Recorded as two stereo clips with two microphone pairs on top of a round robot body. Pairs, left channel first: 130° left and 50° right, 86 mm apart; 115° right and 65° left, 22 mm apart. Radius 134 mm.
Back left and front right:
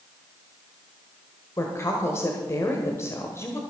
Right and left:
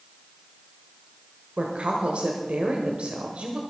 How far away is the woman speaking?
About 1.7 m.